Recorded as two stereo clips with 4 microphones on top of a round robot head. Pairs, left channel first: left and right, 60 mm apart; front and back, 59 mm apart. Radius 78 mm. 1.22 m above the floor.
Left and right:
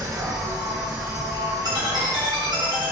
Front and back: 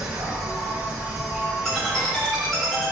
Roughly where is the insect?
Behind right.